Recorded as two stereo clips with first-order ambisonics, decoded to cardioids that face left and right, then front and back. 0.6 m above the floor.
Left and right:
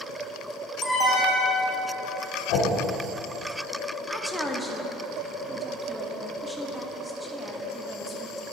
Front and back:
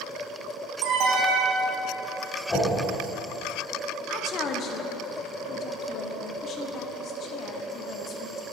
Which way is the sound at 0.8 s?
175° left.